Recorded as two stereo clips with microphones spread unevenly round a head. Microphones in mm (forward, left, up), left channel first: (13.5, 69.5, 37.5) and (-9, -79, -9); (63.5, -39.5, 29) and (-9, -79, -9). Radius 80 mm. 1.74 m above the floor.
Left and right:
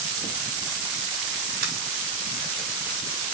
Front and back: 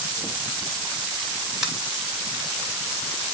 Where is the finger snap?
65° right, 5.5 m.